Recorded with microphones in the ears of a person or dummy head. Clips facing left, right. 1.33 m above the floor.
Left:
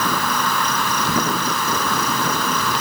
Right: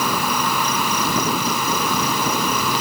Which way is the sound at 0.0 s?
10° right (ahead or behind).